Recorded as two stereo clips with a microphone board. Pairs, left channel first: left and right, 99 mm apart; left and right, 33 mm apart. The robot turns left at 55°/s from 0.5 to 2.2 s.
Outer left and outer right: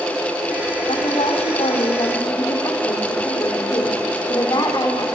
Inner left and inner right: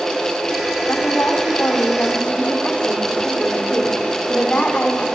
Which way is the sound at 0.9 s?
115° left.